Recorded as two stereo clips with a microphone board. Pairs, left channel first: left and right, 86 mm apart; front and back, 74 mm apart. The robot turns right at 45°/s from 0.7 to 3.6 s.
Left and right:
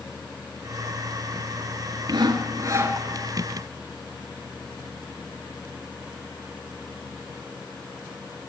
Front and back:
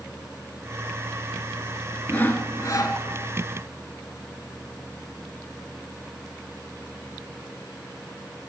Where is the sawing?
70° right, 0.8 m; by 3.0 s 30° right, 0.8 m.